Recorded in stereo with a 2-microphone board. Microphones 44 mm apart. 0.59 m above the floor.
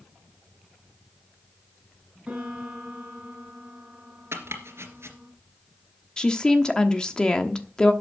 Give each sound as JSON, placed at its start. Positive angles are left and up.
{"t": 2.3, "sound": "a piano", "side_deg": -20, "distance_m": 4.5}
{"t": 4.3, "sound": "chopping", "side_deg": -65, "distance_m": 2.5}
{"t": 6.2, "sound": "a woman speaking", "side_deg": 15, "distance_m": 1.0}